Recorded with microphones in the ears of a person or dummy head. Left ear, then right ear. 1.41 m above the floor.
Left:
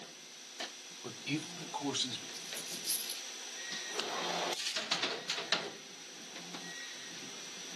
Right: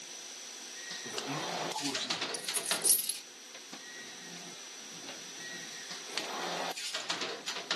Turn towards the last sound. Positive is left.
turn(degrees=-70)  # may be behind; listen again after turning